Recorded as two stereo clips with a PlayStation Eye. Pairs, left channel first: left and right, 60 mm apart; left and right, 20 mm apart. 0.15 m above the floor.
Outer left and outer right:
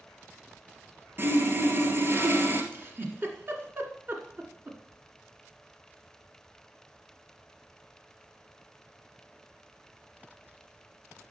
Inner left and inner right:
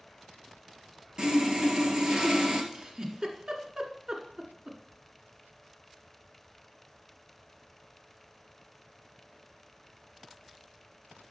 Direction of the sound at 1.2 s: 40° right (ahead or behind).